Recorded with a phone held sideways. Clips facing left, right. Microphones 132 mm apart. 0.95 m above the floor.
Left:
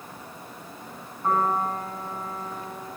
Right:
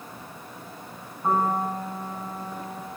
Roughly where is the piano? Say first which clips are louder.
Even; centre.